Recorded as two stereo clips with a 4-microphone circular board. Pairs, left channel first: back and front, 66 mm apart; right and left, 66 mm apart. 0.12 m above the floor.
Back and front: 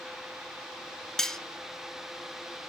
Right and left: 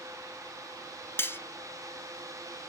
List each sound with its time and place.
1.2 s cutlery clinking: 100° right, 0.9 m